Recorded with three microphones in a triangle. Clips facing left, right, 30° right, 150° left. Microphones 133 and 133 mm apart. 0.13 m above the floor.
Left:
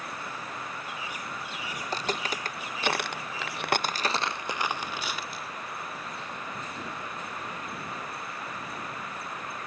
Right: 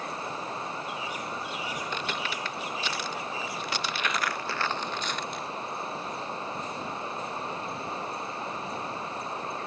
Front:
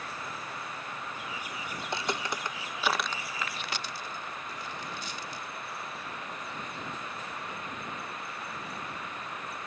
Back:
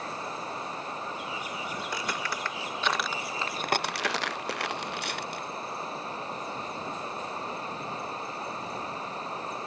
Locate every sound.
0.0 s running water: 150° right
1.8 s footsteps: 35° left; by 5.5 s straight behind